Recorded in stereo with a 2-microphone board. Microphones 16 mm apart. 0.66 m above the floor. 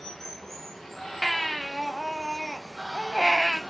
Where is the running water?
25° left (ahead or behind), 5 m.